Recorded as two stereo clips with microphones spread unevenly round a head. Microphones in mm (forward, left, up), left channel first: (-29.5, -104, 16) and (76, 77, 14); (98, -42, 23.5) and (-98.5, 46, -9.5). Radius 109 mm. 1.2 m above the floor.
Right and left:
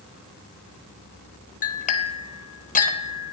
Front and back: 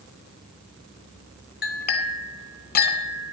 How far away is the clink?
About 0.9 m.